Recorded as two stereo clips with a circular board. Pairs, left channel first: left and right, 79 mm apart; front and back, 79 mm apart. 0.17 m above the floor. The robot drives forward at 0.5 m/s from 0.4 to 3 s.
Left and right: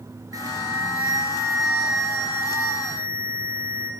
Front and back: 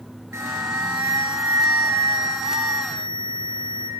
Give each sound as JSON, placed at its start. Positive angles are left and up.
{"t": 0.3, "sound": "an alarm", "azimuth_deg": -125, "distance_m": 3.5}